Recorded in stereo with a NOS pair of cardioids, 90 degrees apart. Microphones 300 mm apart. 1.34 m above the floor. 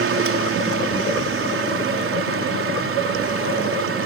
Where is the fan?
45° right.